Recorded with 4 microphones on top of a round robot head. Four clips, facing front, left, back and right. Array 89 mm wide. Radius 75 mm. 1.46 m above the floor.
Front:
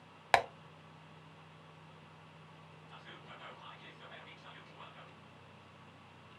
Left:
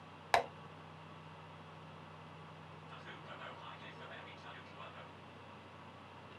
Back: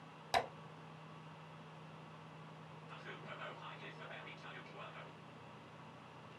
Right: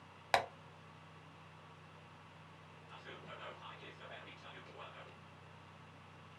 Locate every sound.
0.3 s tapping: 5° left, 0.7 m
2.9 s whispering: 155° right, 1.0 m